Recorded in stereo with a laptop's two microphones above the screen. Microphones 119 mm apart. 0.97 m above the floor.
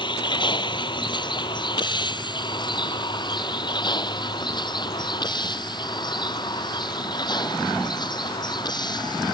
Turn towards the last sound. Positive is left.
turn(degrees=35)  # may be behind; listen again after turning